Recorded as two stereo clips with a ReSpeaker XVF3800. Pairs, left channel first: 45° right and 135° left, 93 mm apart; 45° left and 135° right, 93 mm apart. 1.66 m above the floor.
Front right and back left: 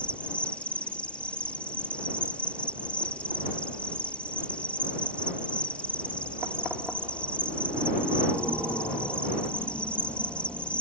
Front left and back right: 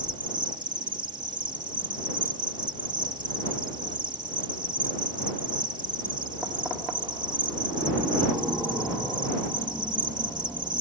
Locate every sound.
0.0 s an insect: 120° right